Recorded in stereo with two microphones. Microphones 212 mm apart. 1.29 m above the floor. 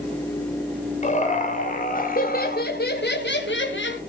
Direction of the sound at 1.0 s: 35° left (ahead or behind).